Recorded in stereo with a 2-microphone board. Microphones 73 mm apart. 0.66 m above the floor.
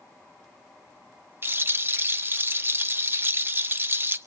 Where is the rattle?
35° right (ahead or behind), 0.8 m.